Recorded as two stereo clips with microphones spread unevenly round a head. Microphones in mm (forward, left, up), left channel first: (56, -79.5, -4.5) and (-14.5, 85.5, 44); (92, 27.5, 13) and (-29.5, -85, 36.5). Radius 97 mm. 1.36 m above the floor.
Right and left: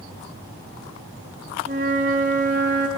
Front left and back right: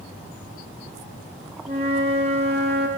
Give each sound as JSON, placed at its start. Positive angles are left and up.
{"t": 1.7, "sound": "a flute", "azimuth_deg": 165, "distance_m": 1.6}